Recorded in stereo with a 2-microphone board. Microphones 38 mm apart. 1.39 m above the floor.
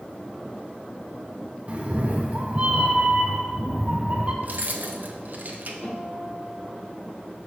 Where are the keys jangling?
50° right (ahead or behind), 0.7 m.